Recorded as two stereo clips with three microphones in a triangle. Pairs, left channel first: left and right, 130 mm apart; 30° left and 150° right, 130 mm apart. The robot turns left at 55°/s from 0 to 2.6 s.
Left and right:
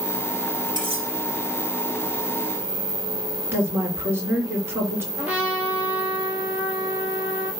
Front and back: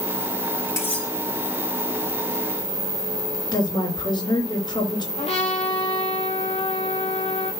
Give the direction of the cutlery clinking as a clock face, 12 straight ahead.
1 o'clock.